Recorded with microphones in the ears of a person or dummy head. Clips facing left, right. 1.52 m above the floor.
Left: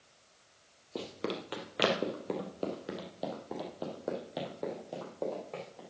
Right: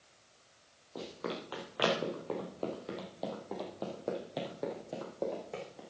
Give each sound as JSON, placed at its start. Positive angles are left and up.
{"t": 0.9, "sound": "running footsteps", "side_deg": 35, "distance_m": 2.0}